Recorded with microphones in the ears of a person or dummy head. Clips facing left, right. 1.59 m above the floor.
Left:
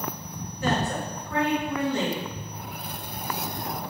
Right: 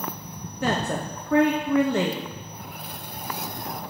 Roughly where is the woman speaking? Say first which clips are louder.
Right 1 dB; right.